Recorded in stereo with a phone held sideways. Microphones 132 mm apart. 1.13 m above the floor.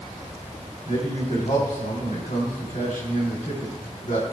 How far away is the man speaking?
About 3.5 m.